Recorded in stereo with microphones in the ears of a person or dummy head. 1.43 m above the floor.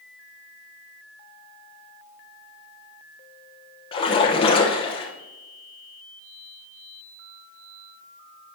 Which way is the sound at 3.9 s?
25° left (ahead or behind).